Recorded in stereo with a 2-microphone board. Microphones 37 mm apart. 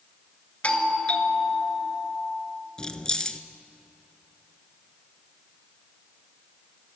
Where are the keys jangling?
20° left (ahead or behind), 1.2 m.